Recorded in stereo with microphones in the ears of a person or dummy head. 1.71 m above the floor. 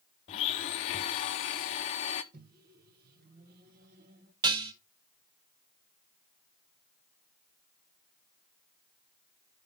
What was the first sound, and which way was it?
A blender, 25° left (ahead or behind).